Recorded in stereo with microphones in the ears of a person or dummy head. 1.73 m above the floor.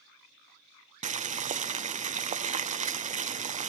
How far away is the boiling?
About 0.6 m.